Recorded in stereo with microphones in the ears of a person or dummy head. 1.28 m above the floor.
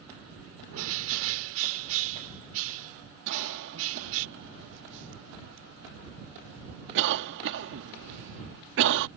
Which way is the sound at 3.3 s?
65° right (ahead or behind).